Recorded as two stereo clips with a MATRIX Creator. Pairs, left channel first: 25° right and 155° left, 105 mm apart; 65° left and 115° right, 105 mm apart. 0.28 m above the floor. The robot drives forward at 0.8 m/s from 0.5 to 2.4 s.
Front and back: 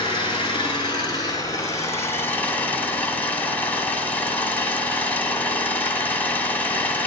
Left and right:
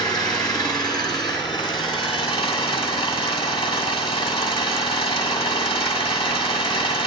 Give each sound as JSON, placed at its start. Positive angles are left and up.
{"t": 0.0, "sound": "an engine running", "azimuth_deg": 20, "distance_m": 2.5}